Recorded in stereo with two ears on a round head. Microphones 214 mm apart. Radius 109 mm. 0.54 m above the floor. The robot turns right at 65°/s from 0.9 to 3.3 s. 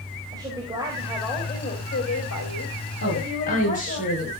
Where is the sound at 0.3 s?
15° right, 3 m; by 4.0 s 140° left, 3 m.